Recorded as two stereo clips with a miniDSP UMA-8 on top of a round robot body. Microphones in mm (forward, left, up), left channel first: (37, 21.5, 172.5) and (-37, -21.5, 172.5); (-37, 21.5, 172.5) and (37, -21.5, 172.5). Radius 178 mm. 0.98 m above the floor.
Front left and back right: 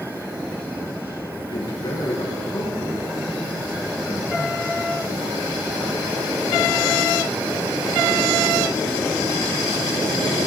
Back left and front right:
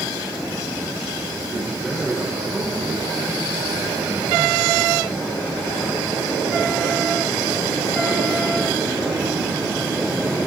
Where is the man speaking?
55° left, 5 m.